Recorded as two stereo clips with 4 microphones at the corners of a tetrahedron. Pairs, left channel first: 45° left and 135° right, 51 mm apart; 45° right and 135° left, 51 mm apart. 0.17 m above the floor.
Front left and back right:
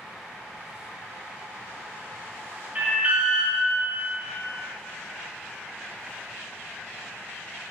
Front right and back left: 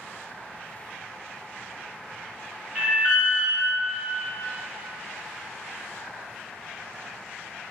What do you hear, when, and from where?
2.8 s an alarm: straight behind, 2 m